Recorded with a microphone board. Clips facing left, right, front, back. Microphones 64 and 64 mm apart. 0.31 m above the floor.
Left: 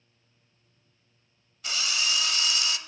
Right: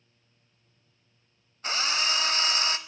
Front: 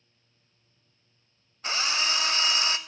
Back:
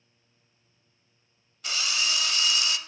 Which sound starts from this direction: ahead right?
A drill, at 1.6 s.